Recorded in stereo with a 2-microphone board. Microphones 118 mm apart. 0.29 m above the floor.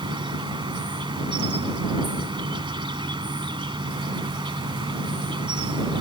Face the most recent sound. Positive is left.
turn(degrees=-45)  # may be behind; listen again after turning